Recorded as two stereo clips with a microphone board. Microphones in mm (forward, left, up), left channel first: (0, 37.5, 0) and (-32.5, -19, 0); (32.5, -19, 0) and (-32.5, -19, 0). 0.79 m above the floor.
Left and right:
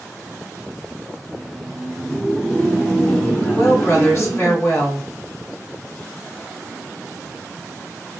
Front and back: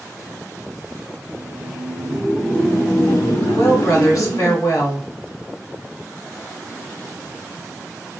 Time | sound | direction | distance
1.2 | laughter | 165° left | 1.3 m
3.5 | a woman speaking | 20° left | 2 m